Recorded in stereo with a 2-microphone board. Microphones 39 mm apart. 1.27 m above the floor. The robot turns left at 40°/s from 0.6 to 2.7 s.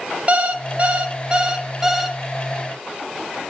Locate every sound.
0.3 s an alarm clock: 110° right, 0.8 m; by 2.2 s 175° right, 0.8 m